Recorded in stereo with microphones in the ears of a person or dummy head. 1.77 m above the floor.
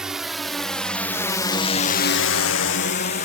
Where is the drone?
5° right (ahead or behind); by 3.3 s 45° left (ahead or behind).